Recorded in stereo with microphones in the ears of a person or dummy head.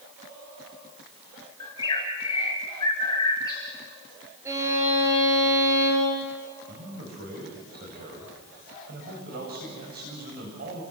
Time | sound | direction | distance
1.6 | a bird | 20° left (ahead or behind) | 4.5 m
4.5 | a violin | 20° right (ahead or behind) | 6 m
6.7 | a man speaking | 50° right (ahead or behind) | 7 m